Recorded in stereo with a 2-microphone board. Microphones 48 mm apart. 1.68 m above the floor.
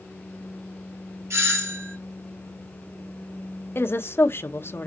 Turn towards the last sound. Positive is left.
turn(degrees=55)  # may be behind; listen again after turning